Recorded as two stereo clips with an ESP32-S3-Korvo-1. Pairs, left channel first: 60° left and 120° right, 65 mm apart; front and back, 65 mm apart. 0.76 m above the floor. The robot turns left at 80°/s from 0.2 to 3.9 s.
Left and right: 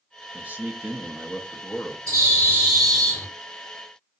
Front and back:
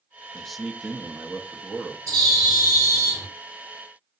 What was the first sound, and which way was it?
A man speaking, 75° right.